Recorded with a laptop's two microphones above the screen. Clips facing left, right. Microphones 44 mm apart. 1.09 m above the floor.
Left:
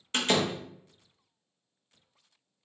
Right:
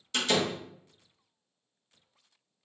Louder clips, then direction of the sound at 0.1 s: Left 1 dB; 40° left (ahead or behind).